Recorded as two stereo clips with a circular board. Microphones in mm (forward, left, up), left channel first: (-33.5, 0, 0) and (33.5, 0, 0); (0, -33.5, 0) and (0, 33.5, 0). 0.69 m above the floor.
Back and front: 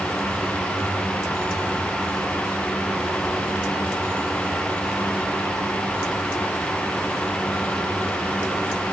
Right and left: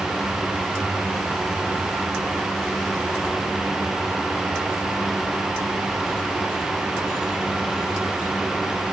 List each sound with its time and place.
Only background noise.